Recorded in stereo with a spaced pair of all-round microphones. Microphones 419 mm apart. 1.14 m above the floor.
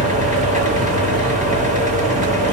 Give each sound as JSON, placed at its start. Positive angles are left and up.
{"t": 0.0, "sound": "a fan", "side_deg": -20, "distance_m": 1.0}